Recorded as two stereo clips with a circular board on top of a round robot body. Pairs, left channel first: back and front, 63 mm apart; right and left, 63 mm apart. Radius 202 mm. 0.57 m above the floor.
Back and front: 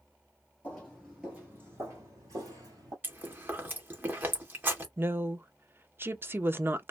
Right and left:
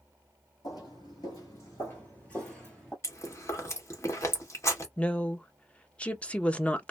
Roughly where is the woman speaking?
Ahead right.